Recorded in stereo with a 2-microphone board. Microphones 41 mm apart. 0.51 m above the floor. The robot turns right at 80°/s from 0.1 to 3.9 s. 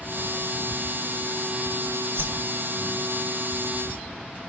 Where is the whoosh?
70° right (ahead or behind), 2 m; by 2.5 s 40° right (ahead or behind), 2 m.